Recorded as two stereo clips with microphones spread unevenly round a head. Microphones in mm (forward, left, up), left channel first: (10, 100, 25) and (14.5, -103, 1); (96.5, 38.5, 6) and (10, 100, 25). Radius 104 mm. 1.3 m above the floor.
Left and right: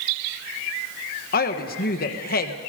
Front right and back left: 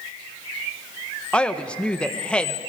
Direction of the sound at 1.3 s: 45° left.